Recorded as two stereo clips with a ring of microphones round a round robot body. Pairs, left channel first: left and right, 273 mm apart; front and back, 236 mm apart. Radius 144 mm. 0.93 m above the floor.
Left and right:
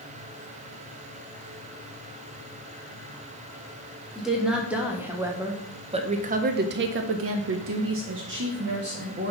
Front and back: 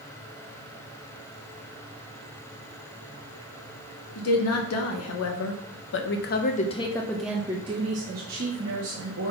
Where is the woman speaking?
Straight ahead, 1.6 m; by 9.3 s 145° right, 1.4 m.